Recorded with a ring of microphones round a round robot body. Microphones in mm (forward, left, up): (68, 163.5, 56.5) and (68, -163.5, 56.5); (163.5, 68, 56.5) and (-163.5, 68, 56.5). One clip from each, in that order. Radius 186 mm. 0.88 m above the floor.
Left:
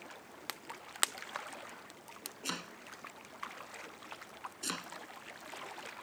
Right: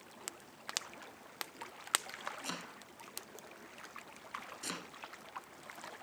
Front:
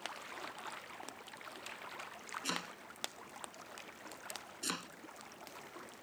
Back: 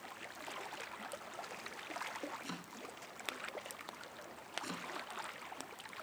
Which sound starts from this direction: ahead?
Chopping, at 2.4 s.